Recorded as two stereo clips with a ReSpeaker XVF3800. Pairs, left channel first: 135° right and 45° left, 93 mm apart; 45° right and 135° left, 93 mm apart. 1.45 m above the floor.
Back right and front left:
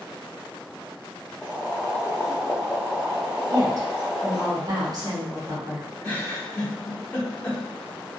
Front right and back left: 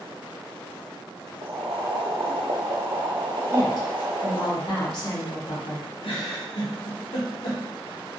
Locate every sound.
1.4 s boiling: 130° left, 0.8 m
3.5 s a woman speaking: 5° right, 1.1 m
6.0 s a giggle: 60° right, 1.1 m